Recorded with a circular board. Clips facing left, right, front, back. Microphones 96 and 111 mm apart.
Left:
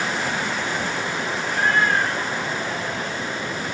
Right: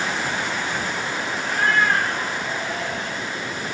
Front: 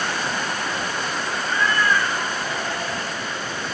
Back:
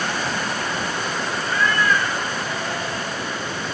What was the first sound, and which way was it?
A cat meowing, 80° right.